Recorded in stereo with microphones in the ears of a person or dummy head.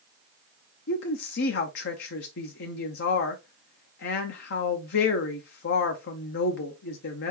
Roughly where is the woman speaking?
Left.